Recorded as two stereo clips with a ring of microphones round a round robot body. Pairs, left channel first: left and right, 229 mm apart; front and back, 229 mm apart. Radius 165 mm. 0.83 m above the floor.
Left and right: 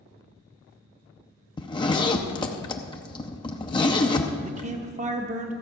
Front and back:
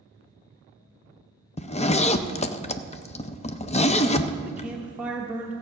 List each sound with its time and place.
1.6 s a zipper: 35° left, 0.6 m
4.4 s a man speaking: 105° right, 0.7 m